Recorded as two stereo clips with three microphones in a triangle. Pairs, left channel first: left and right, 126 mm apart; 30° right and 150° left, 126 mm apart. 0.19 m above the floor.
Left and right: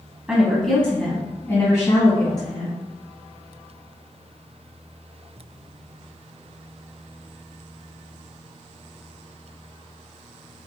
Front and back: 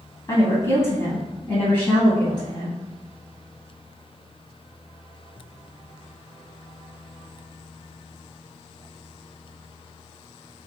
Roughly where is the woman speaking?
Ahead.